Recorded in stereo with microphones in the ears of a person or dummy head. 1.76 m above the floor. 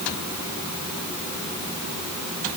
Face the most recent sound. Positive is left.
No sound to turn to.